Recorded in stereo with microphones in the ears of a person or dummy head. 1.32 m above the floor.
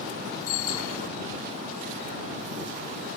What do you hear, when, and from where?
0.5 s a bicycle bell: 85° left